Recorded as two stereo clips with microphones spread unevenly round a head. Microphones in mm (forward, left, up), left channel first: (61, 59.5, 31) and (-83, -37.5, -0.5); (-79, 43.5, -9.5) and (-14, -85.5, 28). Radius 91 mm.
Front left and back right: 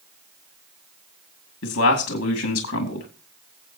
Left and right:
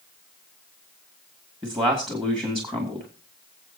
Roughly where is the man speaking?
Ahead.